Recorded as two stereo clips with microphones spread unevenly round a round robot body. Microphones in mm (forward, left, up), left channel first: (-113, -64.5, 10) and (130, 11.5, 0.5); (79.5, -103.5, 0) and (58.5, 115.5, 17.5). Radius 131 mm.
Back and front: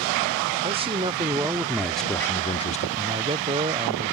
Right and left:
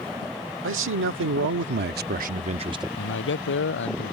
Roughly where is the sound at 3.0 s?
Ahead right.